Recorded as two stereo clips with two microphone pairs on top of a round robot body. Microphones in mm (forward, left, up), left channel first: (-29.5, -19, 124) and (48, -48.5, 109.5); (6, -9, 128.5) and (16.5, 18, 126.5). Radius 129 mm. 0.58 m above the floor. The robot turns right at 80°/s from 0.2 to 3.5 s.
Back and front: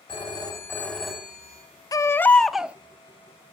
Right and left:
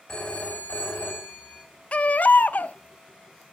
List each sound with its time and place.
0.1 s a phone ringing: straight behind, 4 m; by 1.6 s 60° right, 4 m
1.9 s a baby crying: 150° right, 0.7 m; by 2.8 s 85° right, 0.7 m